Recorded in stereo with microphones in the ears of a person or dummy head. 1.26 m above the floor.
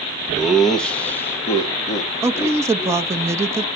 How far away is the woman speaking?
About 0.6 m.